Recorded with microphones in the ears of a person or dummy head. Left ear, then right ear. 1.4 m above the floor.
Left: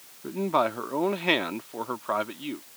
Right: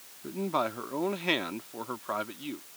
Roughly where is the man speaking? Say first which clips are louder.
Left 5 dB; centre.